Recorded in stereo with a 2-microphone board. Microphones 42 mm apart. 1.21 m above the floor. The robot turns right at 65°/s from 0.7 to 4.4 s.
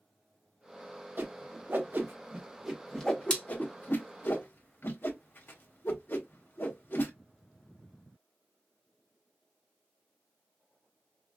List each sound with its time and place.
1.2 s a whoosh: 60° right (ahead or behind), 1.3 m; by 7.1 s 60° left (ahead or behind), 1.3 m